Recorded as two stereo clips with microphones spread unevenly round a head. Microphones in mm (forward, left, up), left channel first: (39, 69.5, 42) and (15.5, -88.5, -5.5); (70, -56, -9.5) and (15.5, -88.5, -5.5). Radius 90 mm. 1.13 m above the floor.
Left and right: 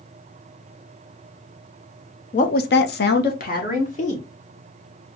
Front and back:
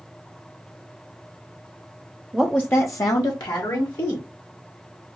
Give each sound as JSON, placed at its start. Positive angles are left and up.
{"t": 2.3, "sound": "a woman speaking", "azimuth_deg": 135, "distance_m": 0.6}